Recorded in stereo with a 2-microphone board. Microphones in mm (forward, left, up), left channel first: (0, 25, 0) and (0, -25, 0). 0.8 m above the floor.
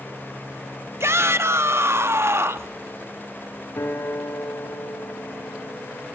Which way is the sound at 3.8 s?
65° left (ahead or behind).